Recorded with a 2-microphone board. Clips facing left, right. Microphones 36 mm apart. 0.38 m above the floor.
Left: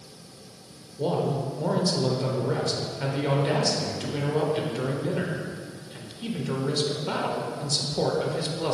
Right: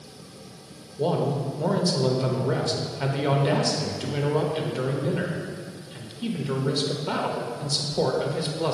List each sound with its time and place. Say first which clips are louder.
1.0 s a man speaking: right 1 dB; 15° right (ahead or behind), 0.8 m